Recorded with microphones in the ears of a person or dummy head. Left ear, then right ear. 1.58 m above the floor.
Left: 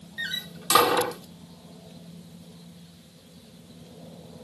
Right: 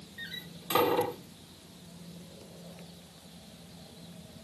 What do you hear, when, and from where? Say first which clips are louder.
0.2 s a door slam: left 10 dB; 60° left (ahead or behind)